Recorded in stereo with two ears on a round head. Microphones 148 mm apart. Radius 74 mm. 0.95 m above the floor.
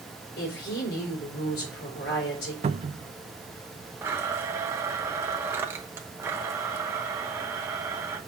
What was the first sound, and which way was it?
A woman speaking, 70° left (ahead or behind).